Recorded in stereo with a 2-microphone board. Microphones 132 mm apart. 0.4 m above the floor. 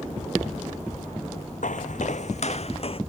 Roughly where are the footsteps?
Left.